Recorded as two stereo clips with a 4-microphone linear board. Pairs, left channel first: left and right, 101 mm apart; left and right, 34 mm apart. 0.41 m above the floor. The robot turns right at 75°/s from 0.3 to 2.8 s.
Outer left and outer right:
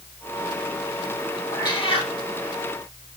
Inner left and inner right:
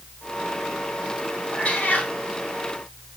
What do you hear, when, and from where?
1.5 s a cat meowing: 35° left, 3 m; by 2.1 s 80° left, 3 m